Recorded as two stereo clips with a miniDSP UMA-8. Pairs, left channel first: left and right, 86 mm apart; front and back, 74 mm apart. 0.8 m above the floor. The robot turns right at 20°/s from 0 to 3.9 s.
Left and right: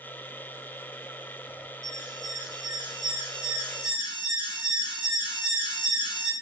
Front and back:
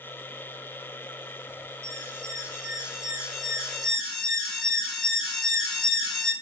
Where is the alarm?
130° right, 2.5 m; by 6.3 s 90° right, 2.5 m.